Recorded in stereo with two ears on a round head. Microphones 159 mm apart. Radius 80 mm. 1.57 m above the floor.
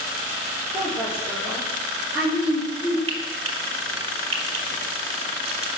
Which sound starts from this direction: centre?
A woman speaking, at 0.7 s.